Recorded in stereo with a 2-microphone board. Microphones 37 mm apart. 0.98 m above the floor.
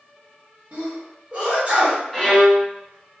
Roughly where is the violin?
Centre.